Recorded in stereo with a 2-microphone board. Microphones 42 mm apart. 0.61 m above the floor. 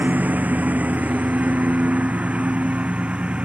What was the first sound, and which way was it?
A lawn mower, 40° right (ahead or behind).